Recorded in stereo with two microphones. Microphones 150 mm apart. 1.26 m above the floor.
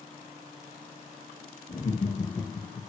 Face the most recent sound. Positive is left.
turn(degrees=5)  # may be behind; listen again after turning